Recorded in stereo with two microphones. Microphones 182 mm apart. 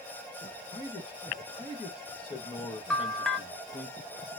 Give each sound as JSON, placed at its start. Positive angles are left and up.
{"t": 0.7, "sound": "a man speaking", "side_deg": 30, "distance_m": 1.3}
{"t": 2.9, "sound": "a bell", "side_deg": 0, "distance_m": 0.6}